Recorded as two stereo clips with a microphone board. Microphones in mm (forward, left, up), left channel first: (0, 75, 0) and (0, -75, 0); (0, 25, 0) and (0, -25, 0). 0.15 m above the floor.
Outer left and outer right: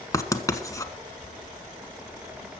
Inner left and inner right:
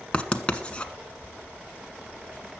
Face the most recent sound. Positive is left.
turn(degrees=20)  # may be behind; listen again after turning